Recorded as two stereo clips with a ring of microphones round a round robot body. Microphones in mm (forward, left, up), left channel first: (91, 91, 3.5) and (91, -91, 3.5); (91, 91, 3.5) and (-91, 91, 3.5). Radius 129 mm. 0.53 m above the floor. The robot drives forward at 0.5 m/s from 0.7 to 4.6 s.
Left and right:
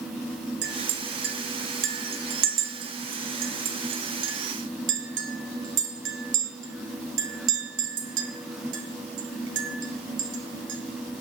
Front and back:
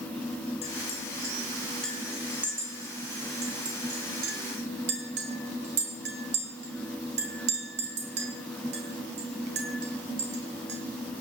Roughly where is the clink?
Ahead right.